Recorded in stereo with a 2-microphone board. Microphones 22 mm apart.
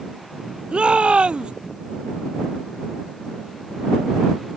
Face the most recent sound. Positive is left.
turn(degrees=-50)  # may be behind; listen again after turning